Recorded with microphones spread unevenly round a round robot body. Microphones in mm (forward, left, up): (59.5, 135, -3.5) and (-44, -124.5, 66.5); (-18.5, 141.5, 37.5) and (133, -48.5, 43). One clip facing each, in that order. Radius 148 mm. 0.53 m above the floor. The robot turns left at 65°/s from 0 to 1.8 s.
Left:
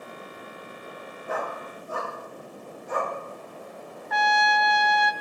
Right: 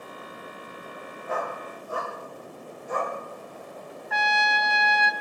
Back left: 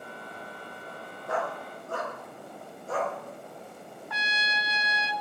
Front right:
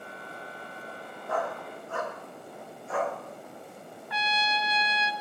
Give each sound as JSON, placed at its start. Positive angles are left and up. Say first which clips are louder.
{"t": 1.3, "sound": "a dog barking", "louder": "even, even", "azimuth_deg": 115, "distance_m": 4.0}
{"t": 4.1, "sound": "a trumpet", "louder": "left 4 dB, front right 7 dB", "azimuth_deg": 145, "distance_m": 1.0}